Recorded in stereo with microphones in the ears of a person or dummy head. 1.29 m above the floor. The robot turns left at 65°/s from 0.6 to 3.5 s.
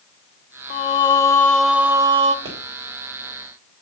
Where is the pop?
25° right (ahead or behind), 3 m; by 2.6 s 20° right (ahead or behind), 3 m.